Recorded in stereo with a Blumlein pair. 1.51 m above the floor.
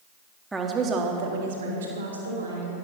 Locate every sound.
0.5 s a woman speaking: 10° right, 1.5 m; by 2.8 s 80° right, 3.5 m